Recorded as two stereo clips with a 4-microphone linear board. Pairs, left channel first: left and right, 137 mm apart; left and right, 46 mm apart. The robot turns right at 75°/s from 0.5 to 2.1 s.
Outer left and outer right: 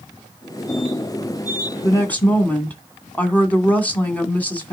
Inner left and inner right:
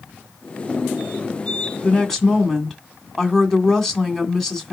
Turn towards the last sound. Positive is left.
turn(degrees=10)  # may be behind; listen again after turning